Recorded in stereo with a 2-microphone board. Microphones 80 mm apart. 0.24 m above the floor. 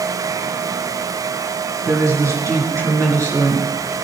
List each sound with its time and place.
1.9 s a woman speaking: 45° right (ahead or behind), 3.5 m